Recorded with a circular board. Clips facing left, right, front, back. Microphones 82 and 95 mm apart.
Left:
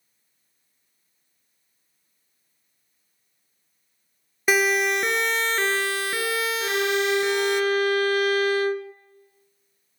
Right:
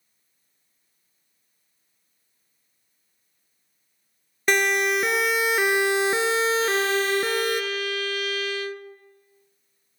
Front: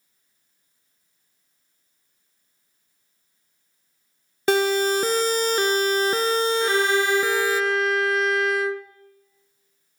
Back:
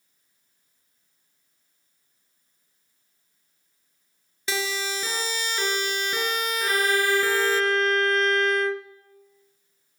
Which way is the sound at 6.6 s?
85° left.